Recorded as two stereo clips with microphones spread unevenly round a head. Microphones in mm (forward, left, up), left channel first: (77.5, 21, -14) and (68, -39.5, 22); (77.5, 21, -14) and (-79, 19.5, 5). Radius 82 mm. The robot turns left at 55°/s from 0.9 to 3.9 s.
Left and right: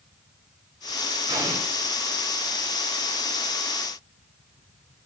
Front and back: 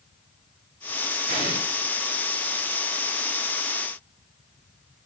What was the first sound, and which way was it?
An explosion, 120° right.